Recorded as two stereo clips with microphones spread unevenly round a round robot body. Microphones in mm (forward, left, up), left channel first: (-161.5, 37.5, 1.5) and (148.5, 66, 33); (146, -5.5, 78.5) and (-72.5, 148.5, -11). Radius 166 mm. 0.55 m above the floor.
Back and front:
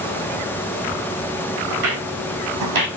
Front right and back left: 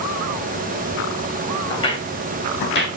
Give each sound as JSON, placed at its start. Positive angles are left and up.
{"t": 1.7, "sound": "footsteps", "azimuth_deg": 30, "distance_m": 1.9}